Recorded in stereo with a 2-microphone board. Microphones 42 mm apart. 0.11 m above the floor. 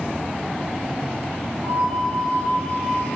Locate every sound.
1.6 s a flute: 55° left (ahead or behind), 1.1 m